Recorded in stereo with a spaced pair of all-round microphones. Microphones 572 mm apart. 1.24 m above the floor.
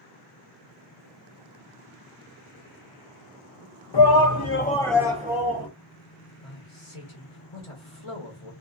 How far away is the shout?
About 0.7 m.